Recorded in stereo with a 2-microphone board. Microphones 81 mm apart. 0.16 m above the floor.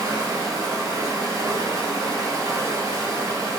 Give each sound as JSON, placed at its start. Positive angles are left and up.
{"t": 0.0, "sound": "running water", "side_deg": -45, "distance_m": 1.1}